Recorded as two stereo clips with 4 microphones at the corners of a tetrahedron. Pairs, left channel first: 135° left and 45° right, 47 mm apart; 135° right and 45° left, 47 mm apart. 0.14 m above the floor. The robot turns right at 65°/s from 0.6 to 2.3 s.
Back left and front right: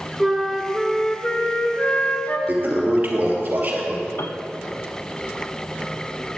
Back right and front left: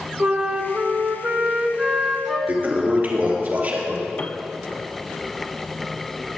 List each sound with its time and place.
0.2 s a flute: 30° left, 1.5 m; by 2.4 s 140° left, 1.5 m
2.5 s a toilet flushing: straight ahead, 2.5 m
4.2 s a piano: 160° left, 0.6 m